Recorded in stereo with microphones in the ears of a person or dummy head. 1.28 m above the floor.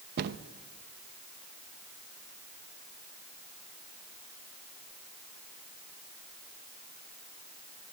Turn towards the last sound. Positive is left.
turn(degrees=-55)  # may be behind; listen again after turning